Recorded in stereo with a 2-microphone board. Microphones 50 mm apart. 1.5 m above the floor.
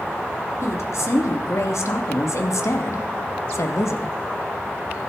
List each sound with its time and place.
0.6 s a woman speaking: 65° left (ahead or behind), 3.5 m